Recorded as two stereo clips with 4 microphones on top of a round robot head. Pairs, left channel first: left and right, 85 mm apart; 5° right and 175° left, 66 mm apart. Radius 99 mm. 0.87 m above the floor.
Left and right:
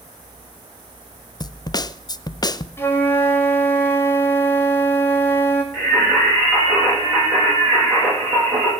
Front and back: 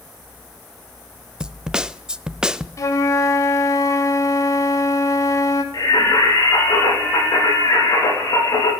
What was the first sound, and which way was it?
A snare drum, 95° left.